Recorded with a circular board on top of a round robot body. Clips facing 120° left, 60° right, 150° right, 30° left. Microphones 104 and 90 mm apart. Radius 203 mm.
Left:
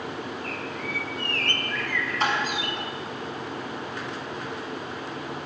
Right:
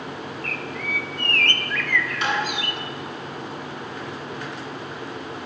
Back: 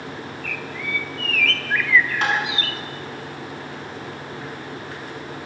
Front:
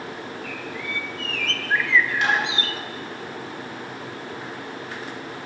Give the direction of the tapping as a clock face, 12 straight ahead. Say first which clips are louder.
Left 1 dB, even; 7 o'clock.